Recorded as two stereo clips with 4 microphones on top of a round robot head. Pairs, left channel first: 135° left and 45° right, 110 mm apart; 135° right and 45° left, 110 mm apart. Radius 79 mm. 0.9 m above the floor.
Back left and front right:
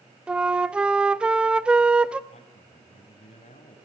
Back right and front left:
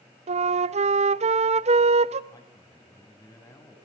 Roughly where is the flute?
Ahead left.